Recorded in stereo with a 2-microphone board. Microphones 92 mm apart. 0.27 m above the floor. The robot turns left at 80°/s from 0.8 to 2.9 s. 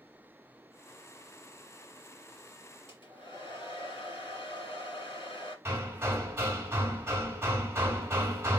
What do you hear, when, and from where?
2.9 s a hair dryer: 60° left (ahead or behind), 1.9 m
5.7 s hammering: 25° right (ahead or behind), 1.1 m